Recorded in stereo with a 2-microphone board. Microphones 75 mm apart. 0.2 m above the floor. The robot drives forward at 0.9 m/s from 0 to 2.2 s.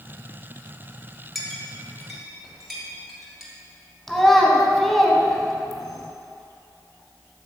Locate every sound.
1.4 s a clink: centre (ahead or behind), 1.0 m
4.1 s a child speaking: 5° left (ahead or behind), 0.8 m